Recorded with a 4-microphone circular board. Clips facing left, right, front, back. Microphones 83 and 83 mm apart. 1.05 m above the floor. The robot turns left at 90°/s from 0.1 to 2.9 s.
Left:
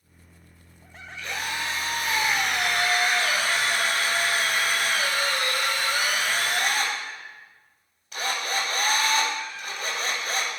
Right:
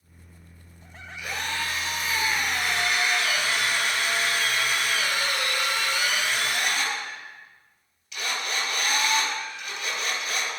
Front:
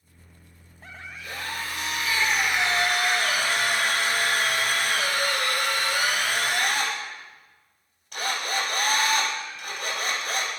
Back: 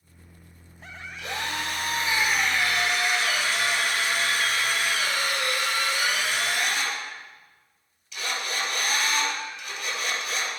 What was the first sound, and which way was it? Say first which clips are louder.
A drill: even, back 3 dB; 165° right.